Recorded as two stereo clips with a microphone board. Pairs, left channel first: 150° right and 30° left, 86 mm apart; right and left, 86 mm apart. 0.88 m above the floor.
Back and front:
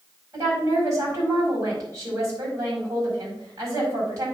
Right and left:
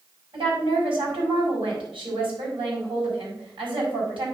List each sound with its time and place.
0.3 s a woman speaking: 85° left, 5 m